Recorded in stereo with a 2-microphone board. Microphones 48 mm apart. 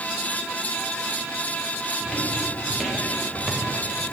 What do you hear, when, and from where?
2.0 s footsteps: centre (ahead or behind), 7.5 m; by 4.0 s 20° right (ahead or behind), 5.5 m